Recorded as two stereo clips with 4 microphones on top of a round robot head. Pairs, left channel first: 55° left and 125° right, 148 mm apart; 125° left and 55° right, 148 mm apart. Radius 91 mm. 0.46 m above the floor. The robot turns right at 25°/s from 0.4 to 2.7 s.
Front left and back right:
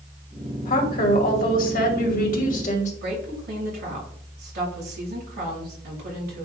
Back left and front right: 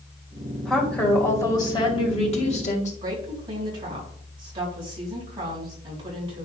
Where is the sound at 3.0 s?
110° right, 4 m.